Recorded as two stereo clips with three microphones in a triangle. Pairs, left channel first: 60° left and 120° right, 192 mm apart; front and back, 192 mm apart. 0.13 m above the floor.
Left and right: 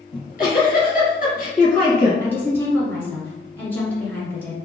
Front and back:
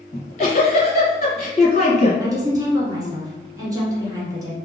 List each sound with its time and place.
0.1 s a giggle: 40° left, 1.9 m
2.2 s a woman speaking: 130° left, 1.5 m